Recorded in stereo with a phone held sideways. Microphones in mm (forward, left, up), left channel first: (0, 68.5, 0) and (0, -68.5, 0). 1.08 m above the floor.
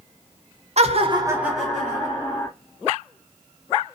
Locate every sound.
0.8 s laughter: 50° right (ahead or behind), 0.6 m; by 2.5 s 20° left (ahead or behind), 1.5 m